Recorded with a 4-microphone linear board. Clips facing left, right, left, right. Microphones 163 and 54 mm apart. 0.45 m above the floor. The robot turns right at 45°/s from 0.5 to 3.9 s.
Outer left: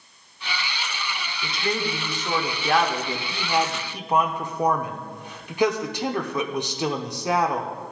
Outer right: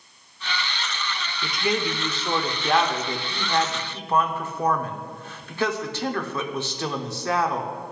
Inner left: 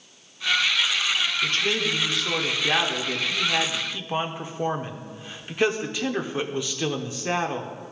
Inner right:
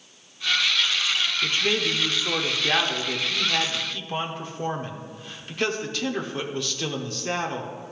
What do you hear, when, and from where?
1.4 s a man speaking: 20° right (ahead or behind), 0.7 m; by 7.7 s 15° left (ahead or behind), 0.7 m